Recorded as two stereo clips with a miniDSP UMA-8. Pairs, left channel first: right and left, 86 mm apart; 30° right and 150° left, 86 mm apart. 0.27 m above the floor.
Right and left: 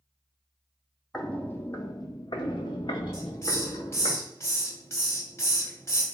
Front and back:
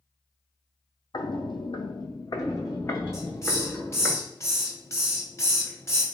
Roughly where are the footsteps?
Ahead.